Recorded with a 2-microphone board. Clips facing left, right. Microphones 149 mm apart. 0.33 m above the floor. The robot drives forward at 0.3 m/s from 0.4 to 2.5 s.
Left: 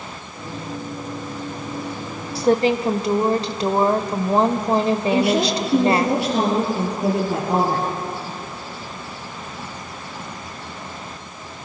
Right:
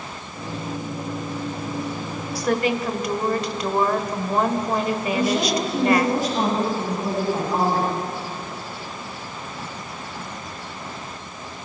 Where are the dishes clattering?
No dishes clattering in this recording.